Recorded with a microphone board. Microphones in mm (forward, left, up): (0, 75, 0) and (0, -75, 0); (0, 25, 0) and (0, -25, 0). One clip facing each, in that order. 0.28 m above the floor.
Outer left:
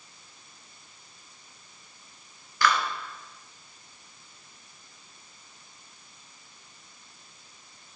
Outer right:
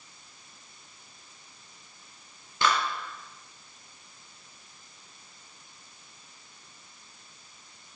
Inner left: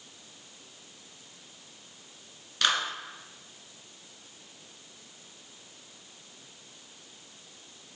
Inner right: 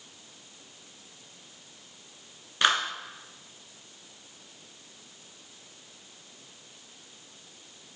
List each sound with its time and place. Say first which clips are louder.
2.6 s a clap: outer left 1 dB, inner right 3 dB; 25° right (ahead or behind), 2 m